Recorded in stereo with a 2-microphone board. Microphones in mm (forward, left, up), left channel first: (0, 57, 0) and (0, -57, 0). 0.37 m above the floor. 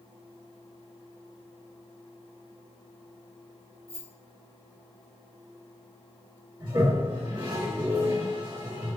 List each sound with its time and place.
3.9 s keys jangling: 50° left (ahead or behind), 1.5 m
6.6 s a toilet flushing: 40° right (ahead or behind), 1.6 m